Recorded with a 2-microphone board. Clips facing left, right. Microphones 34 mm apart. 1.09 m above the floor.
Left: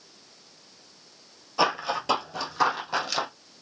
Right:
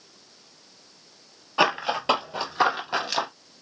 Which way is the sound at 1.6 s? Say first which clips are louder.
Right 2 dB; 45° right (ahead or behind).